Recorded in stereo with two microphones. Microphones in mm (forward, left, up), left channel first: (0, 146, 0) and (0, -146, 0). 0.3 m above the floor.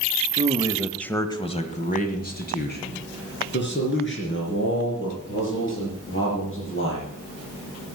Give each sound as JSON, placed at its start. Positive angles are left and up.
{"t": 0.4, "sound": "a man speaking", "side_deg": -25, "distance_m": 1.0}